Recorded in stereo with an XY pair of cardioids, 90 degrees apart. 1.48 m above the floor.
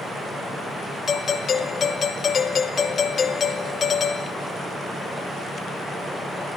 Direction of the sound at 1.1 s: 50° left.